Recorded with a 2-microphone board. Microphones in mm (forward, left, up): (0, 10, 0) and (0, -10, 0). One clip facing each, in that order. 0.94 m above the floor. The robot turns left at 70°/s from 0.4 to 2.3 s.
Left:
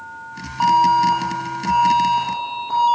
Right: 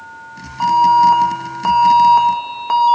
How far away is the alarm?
About 1.1 m.